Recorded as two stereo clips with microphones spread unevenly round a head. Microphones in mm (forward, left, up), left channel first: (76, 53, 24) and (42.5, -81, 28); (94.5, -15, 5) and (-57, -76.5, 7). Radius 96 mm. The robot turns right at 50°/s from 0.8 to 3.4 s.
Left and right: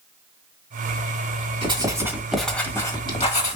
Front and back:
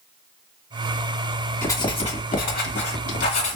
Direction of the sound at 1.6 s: 50° right.